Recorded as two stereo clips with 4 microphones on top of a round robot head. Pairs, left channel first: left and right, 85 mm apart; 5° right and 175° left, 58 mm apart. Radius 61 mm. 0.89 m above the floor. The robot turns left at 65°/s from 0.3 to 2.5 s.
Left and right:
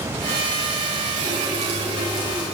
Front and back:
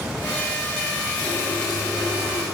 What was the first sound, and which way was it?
A running tap, 50° right.